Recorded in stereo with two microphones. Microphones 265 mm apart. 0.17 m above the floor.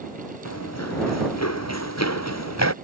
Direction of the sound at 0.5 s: 75° left (ahead or behind).